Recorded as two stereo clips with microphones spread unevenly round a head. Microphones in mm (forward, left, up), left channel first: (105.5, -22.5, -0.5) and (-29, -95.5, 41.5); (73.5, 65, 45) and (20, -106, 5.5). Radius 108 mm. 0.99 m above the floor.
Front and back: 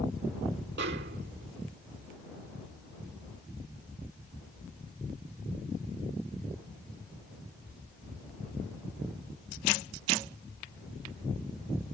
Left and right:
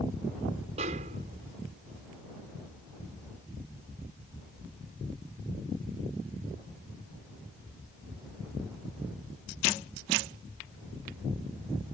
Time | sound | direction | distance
0.8 | a snare drum | 165° right | ?